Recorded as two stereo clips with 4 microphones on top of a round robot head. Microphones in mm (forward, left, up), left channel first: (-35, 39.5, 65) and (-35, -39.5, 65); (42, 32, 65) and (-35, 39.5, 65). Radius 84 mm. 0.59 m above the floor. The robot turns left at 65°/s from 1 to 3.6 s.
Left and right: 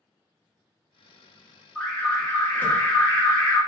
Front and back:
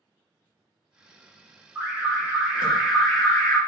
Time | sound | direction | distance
1.8 | an alarm | 165° left | 1.3 m